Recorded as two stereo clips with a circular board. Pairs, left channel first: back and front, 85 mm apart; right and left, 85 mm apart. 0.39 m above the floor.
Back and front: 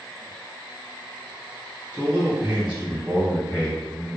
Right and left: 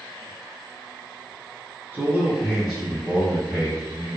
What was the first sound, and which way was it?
A man speaking, 40° left.